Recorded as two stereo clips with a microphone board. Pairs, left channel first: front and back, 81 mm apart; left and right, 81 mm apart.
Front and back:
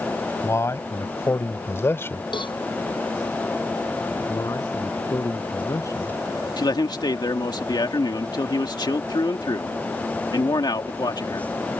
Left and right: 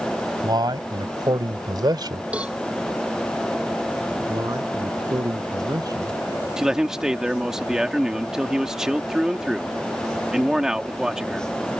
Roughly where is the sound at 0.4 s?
Ahead right.